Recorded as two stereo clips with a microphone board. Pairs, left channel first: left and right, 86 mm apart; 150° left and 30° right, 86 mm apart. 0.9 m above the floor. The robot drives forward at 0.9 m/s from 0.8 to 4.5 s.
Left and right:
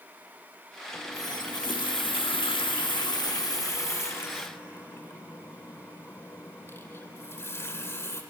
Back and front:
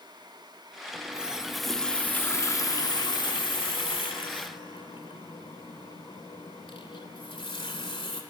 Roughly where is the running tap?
Ahead left.